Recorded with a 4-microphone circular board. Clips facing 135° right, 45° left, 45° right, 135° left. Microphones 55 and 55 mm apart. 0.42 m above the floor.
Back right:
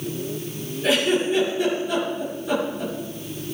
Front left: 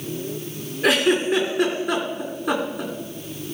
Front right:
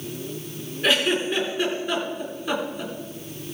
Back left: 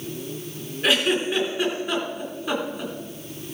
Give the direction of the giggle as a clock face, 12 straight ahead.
10 o'clock.